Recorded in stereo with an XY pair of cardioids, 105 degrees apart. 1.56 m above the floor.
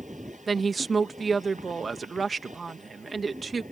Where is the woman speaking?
30° right.